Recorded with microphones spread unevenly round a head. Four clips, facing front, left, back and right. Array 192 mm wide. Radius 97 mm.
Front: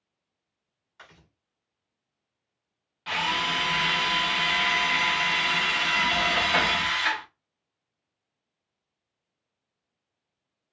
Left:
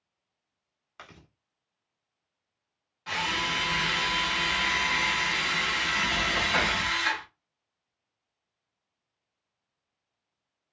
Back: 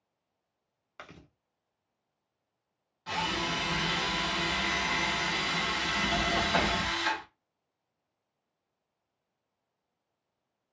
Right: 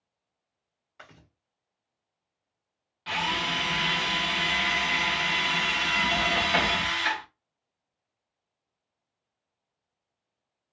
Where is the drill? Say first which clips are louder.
Right 1 dB, front 4 dB; 20° right, 0.9 m.